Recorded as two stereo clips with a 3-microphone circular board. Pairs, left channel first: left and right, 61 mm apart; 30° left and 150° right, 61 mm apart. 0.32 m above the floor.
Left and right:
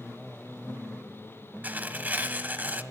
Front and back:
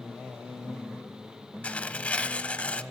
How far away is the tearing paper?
About 1.0 m.